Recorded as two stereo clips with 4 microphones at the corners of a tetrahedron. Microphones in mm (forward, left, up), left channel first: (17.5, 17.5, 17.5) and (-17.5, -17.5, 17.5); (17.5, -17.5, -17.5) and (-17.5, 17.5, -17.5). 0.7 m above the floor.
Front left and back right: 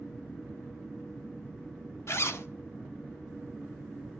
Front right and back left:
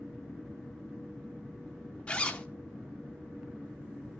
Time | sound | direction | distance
2.1 | a zipper | 25° left | 1.0 m